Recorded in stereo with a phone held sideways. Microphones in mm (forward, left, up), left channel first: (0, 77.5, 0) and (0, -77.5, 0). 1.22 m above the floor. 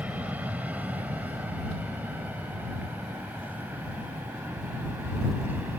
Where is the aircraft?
10° right (ahead or behind).